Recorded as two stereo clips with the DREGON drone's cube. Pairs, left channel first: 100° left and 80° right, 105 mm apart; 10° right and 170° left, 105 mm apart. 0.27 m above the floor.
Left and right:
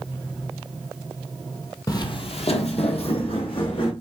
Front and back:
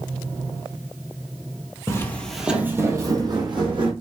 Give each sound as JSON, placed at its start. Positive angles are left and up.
{"t": 1.9, "sound": "footsteps", "azimuth_deg": 45, "distance_m": 0.5}